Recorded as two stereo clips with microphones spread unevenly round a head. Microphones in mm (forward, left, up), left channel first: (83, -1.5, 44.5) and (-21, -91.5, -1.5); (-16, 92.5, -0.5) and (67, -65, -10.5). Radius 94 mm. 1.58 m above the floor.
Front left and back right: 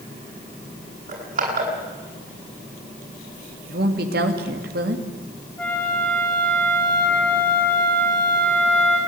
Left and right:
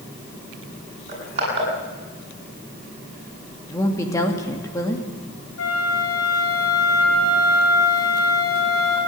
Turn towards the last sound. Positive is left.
turn(degrees=120)